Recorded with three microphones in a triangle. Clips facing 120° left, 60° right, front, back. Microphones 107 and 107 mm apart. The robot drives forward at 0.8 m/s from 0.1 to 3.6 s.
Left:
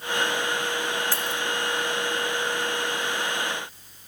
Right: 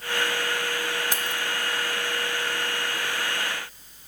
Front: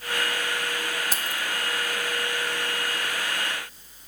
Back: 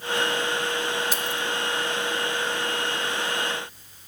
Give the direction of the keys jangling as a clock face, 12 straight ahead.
12 o'clock.